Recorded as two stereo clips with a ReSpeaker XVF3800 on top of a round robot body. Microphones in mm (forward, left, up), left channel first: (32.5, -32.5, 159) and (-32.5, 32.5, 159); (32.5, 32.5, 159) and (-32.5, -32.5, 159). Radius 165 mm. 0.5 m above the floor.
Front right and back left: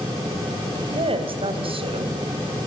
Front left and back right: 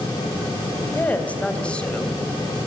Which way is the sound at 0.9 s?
115° left.